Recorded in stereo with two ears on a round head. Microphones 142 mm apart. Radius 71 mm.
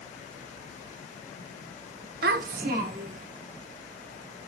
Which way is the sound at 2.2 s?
60° right (ahead or behind).